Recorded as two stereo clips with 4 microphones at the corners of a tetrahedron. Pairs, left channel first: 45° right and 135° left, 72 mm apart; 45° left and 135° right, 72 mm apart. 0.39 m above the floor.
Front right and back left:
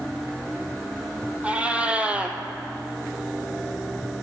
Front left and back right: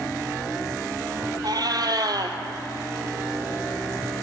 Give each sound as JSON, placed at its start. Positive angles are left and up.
{"t": 1.4, "sound": "a cat meowing", "azimuth_deg": -155, "distance_m": 0.9}